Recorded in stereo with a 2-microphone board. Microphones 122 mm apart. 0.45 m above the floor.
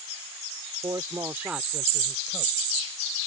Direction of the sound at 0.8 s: 35° right (ahead or behind).